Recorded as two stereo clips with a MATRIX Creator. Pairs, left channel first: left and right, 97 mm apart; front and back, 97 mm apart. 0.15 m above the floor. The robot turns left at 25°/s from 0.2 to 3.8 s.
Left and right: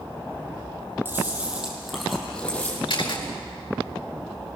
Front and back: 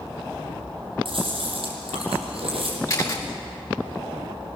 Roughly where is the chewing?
Behind right.